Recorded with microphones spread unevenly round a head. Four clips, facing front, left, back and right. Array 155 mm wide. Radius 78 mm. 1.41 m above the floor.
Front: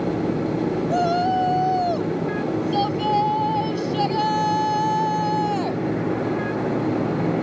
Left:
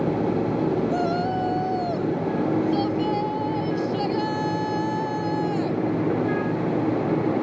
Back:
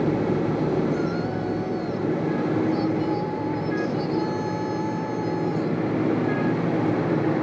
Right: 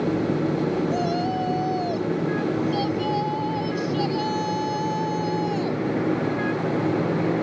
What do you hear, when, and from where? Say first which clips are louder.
0.9 s a shout: even, front 5 dB; 15° left